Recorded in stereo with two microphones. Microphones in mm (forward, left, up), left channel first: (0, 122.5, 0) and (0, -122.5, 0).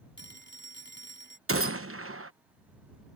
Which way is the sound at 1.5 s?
65° right (ahead or behind).